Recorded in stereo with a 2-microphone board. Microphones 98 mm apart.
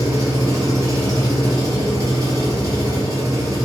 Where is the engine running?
35° right (ahead or behind), 1.4 m.